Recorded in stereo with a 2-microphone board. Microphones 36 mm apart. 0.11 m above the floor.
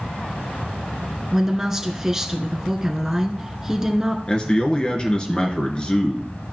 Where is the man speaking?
30° left (ahead or behind), 1.3 m.